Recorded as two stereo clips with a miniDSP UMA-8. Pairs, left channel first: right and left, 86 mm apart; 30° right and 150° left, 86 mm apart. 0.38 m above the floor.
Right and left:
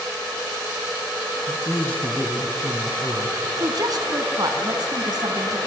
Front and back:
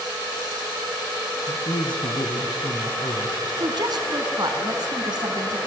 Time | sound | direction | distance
1.5 | a man speaking | 15° right | 2 m
3.6 | a woman speaking | 120° left | 3 m